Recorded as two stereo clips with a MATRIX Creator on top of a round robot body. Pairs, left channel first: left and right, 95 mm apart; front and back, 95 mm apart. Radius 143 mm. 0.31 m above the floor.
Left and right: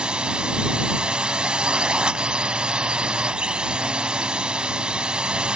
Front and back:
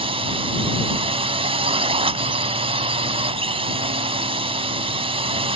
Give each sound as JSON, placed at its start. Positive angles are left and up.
{"t": 0.0, "sound": "a drone", "azimuth_deg": -170}